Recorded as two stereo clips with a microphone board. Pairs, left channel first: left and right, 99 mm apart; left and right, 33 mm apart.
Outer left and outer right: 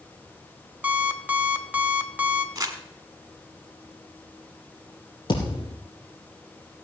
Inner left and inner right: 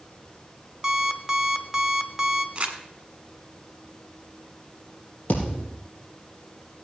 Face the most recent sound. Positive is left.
turn(degrees=45)  # may be behind; listen again after turning